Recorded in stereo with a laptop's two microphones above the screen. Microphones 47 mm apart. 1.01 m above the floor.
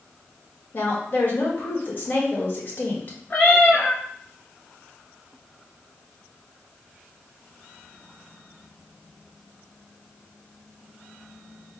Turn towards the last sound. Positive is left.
turn(degrees=20)  # may be behind; listen again after turning